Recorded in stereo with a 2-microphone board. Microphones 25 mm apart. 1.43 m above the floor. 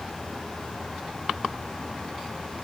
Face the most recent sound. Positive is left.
No sound to turn to.